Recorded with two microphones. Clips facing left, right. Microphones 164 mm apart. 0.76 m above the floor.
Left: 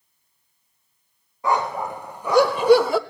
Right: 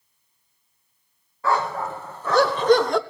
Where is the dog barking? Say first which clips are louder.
Left 1 dB; 15° left (ahead or behind), 1.8 m; by 3.0 s 5° left (ahead or behind), 0.7 m.